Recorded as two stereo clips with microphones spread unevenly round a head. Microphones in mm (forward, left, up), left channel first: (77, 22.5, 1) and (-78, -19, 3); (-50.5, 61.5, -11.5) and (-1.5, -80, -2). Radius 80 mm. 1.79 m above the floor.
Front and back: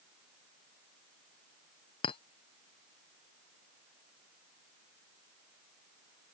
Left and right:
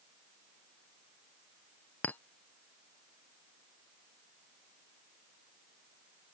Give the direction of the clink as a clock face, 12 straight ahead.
11 o'clock.